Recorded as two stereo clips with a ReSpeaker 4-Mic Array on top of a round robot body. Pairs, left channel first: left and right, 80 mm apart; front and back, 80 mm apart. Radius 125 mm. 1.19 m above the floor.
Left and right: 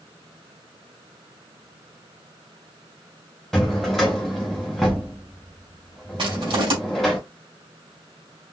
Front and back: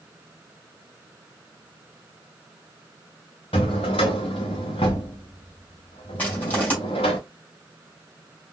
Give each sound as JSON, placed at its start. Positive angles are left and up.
{"t": 3.5, "sound": "a drawer", "azimuth_deg": 5, "distance_m": 0.6}
{"t": 6.2, "sound": "crushing", "azimuth_deg": -70, "distance_m": 3.0}